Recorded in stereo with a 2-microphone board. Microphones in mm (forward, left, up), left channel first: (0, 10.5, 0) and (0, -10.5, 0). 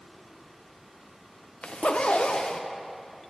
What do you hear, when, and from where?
1.6 s a zipper: 70° left (ahead or behind), 0.6 m